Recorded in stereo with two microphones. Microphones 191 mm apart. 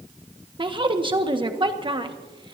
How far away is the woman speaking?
About 1.4 m.